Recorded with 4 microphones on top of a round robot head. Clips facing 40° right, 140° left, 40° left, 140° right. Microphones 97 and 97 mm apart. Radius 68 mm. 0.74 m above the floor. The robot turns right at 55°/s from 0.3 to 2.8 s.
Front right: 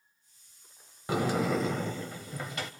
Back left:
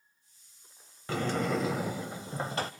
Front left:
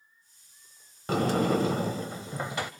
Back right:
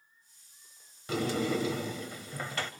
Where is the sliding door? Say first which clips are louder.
Front right 2 dB, front left 5 dB; 25° left, 0.5 m; by 2.7 s 110° left, 0.5 m.